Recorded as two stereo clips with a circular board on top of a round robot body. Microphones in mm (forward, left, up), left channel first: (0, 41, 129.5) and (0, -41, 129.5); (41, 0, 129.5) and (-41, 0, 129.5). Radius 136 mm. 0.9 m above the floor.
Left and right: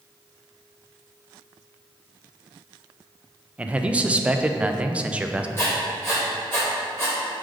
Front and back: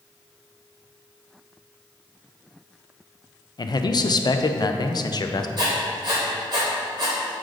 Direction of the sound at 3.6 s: 15° right.